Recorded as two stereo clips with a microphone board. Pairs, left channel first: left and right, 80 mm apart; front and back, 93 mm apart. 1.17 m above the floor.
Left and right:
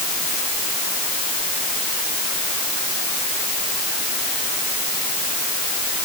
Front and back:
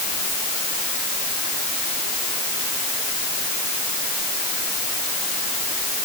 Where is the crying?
I don't hear crying.